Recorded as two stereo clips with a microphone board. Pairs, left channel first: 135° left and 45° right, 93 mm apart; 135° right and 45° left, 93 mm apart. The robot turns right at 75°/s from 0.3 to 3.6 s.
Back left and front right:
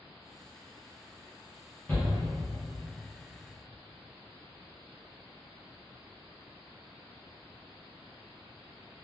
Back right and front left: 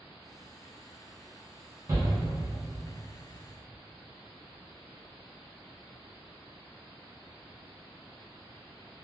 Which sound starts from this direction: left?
A shout, at 1.9 s.